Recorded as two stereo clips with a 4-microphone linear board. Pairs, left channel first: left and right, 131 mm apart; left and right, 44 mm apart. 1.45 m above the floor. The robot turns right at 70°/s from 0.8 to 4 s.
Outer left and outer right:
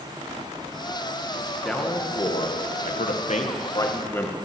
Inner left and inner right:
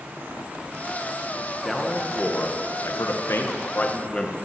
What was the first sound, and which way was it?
A man speaking, straight ahead.